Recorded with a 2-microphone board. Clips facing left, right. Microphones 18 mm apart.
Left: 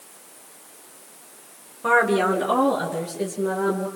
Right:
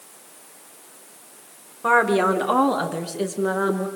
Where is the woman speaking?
15° right (ahead or behind), 3 m; by 3.9 s 50° right (ahead or behind), 5 m.